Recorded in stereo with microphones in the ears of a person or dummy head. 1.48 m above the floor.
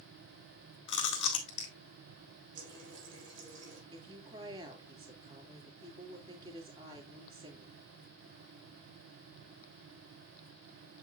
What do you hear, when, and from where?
0.9 s chewing: 40° left (ahead or behind), 2.0 m
2.5 s a running tap: 70° right (ahead or behind), 5 m
3.9 s a woman speaking: 30° right (ahead or behind), 2.5 m